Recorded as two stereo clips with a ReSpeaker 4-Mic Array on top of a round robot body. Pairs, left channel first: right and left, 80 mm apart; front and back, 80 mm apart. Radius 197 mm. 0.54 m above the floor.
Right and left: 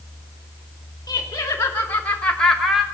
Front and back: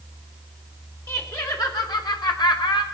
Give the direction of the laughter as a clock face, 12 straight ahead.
2 o'clock.